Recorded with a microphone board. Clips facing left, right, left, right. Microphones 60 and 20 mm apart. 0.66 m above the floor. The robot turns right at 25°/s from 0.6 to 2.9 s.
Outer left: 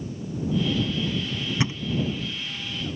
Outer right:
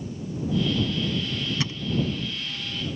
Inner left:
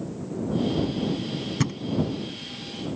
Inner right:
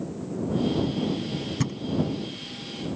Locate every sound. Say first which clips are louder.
1.6 s a thud: outer left 3 dB, inner left 4 dB; 20° left (ahead or behind); by 1.8 s 15° left (ahead or behind)